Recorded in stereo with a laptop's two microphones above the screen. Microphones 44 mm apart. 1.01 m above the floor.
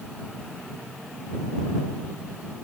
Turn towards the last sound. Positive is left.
No sound to turn to.